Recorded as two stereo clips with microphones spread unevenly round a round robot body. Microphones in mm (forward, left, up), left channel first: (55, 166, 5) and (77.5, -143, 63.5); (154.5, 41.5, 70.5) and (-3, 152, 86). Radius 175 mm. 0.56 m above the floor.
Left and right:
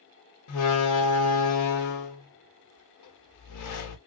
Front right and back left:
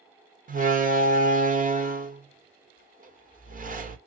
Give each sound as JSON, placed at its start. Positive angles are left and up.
{"t": 0.5, "sound": "a door slam", "azimuth_deg": 95, "distance_m": 1.0}